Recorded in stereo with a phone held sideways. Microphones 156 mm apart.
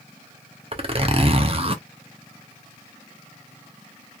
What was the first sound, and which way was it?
A zipper, 40° right (ahead or behind).